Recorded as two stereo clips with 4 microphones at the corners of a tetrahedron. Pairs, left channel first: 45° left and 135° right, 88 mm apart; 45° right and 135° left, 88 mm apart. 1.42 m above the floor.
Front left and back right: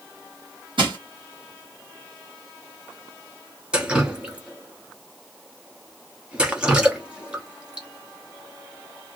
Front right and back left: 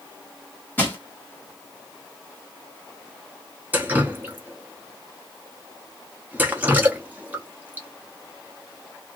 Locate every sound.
0.8 s crushing: 115° right, 1.5 m
3.7 s dripping: 165° left, 0.8 m